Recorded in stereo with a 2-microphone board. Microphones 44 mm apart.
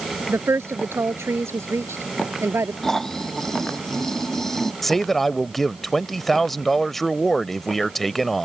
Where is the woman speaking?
75° right (ahead or behind).